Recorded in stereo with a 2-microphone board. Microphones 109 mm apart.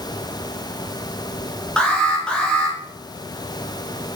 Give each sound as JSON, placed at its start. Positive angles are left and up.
{"t": 1.8, "sound": "an alarm", "side_deg": 10, "distance_m": 1.8}